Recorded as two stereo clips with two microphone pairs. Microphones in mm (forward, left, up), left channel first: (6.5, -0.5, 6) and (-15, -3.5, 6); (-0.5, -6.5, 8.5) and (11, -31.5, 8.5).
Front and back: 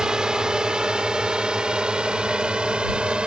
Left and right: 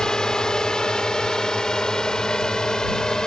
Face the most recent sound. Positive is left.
turn(degrees=175)